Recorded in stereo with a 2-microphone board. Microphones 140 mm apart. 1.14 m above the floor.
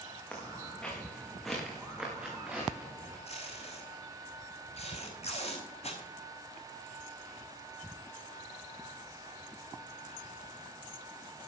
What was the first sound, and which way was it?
Footsteps, 15° left (ahead or behind).